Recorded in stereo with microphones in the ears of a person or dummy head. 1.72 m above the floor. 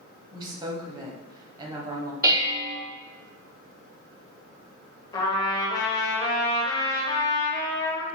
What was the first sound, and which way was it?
A woman speaking, 25° right (ahead or behind).